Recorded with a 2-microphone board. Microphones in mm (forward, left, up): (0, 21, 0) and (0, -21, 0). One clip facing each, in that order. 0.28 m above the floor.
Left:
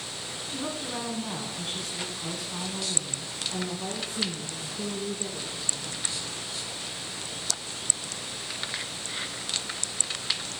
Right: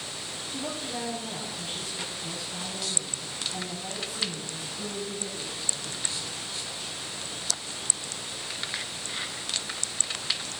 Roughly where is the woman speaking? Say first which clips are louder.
Left 1 dB; left.